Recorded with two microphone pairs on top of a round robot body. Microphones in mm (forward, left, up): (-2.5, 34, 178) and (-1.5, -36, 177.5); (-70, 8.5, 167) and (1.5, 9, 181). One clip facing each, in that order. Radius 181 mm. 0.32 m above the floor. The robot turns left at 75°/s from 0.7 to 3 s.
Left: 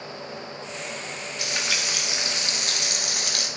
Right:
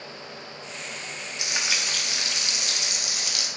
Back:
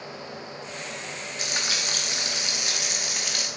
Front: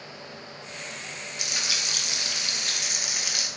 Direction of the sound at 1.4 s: 150° right.